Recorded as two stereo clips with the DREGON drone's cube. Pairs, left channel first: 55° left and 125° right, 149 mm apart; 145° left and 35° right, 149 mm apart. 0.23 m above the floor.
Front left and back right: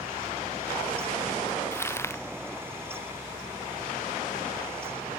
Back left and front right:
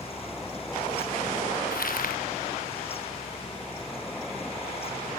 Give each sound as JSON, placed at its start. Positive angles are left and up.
{"t": 1.7, "sound": "crumpling", "azimuth_deg": 130}